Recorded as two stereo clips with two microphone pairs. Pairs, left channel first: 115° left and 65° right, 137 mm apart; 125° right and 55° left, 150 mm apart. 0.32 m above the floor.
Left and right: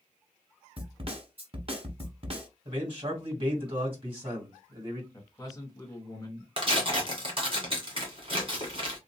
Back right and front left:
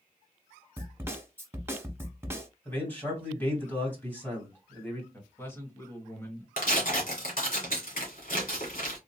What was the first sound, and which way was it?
A snare drum, 20° right.